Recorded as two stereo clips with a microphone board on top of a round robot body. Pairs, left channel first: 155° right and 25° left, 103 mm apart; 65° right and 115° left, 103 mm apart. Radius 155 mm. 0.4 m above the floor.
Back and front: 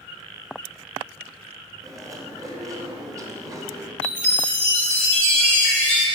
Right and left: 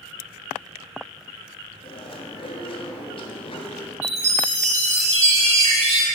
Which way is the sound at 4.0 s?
120° left.